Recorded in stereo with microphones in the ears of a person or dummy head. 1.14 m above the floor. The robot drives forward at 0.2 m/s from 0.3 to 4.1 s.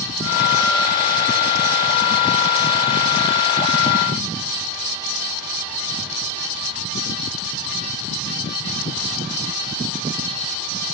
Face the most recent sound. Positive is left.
No sound to turn to.